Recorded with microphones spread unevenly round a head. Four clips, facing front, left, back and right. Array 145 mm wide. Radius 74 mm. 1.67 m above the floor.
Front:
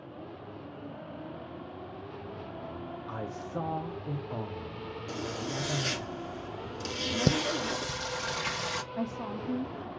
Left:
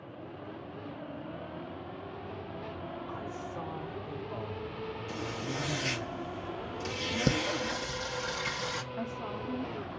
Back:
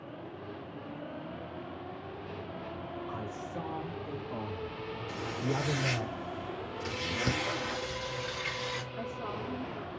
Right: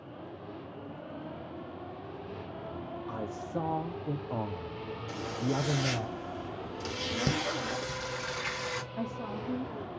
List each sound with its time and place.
3.1 s a man speaking: 50° right, 1.7 m; by 6.1 s 125° right, 1.4 m
5.1 s a zipper: 5° right, 4 m
7.3 s singing: 15° left, 1.1 m
8.9 s a woman speaking: 25° right, 3 m